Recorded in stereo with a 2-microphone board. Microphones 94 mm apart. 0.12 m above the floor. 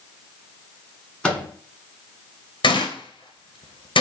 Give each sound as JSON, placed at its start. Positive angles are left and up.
{"t": 1.2, "sound": "a microwave", "side_deg": 10, "distance_m": 1.3}
{"t": 2.6, "sound": "a gunshot", "side_deg": 60, "distance_m": 0.6}